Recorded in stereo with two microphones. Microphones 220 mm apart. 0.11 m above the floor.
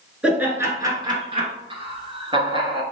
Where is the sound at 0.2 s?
5° right (ahead or behind), 1.3 m; by 1.5 s 30° right (ahead or behind), 1.4 m.